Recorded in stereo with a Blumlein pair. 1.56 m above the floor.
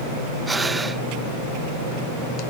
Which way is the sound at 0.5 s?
10° right.